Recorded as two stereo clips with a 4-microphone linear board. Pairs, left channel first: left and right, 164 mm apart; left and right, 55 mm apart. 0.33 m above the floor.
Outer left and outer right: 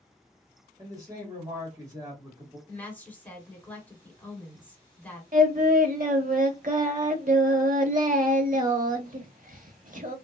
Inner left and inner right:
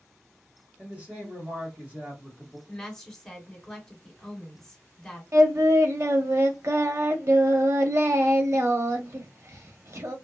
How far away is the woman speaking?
About 1.2 m.